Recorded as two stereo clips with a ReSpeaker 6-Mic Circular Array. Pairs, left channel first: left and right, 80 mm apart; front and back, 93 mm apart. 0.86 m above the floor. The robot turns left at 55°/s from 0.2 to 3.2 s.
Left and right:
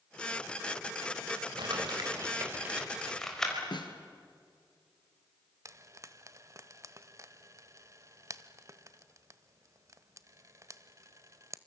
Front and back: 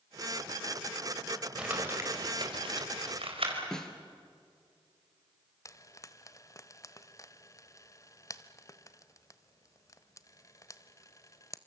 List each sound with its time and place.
1.6 s crumpling: 100° right, 4 m; by 3.6 s 170° left, 4 m
3.7 s a snare drum: 85° left, 2.5 m
5.7 s frying: 45° right, 0.9 m